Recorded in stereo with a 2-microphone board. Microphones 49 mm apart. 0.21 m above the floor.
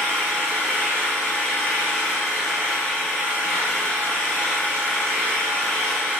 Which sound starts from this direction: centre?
An engine running, at 0.0 s.